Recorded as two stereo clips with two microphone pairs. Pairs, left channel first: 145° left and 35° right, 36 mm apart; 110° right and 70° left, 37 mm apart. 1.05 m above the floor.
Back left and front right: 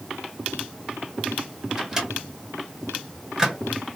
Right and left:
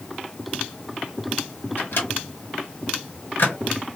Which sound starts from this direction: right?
A microwave, at 1.8 s.